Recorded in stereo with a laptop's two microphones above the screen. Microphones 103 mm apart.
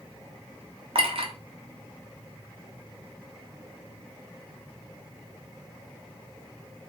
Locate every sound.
0.9 s a clink: 60° right (ahead or behind), 0.5 m